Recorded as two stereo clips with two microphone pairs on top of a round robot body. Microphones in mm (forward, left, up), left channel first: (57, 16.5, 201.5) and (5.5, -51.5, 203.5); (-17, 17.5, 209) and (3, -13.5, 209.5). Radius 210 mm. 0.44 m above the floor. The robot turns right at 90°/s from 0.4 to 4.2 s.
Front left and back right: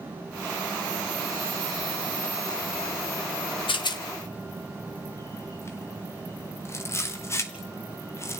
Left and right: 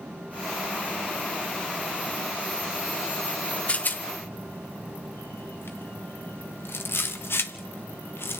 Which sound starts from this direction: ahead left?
A rattle, at 3.7 s.